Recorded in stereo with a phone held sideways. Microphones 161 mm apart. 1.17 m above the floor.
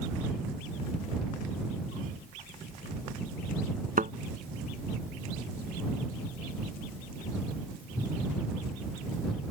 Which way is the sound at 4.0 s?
60° right (ahead or behind).